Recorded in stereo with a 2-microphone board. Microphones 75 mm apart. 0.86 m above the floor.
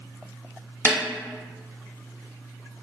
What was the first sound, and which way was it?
A snare drum, 30° right (ahead or behind).